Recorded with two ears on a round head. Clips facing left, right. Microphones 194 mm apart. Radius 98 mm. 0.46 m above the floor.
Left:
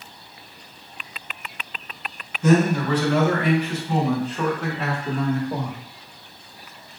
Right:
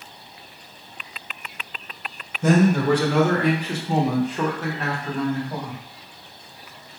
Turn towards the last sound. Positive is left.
turn(degrees=20)  # may be behind; listen again after turning